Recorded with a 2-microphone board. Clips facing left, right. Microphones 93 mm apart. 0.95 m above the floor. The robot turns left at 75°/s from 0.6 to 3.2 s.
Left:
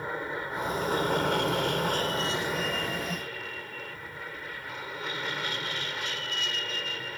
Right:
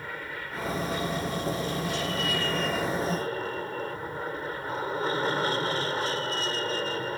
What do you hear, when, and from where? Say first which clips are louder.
0.0 s an aircraft: left 4 dB; 155° left; by 7.2 s 40° right